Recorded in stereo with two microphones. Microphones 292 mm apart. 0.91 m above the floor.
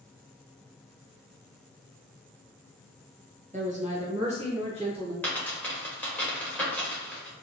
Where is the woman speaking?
25° right (ahead or behind), 0.7 m; by 5.1 s 20° right (ahead or behind), 2 m.